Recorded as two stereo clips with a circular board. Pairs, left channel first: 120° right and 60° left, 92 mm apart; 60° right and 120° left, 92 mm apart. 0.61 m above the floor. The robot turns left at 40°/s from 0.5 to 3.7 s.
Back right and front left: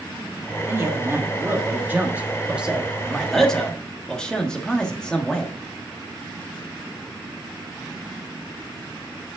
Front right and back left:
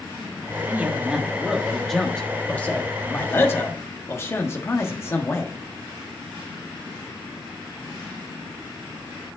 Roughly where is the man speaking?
Left.